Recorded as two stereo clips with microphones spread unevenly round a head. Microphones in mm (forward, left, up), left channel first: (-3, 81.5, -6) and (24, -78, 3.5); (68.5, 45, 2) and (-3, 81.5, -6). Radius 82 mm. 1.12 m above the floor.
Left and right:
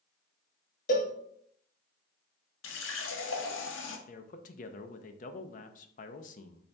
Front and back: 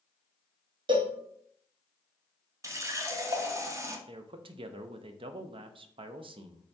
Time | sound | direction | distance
0.9 | a cowbell | 140° left | 0.7 m
2.6 | a running tap | 100° left | 0.8 m
4.1 | a man speaking | 145° left | 0.5 m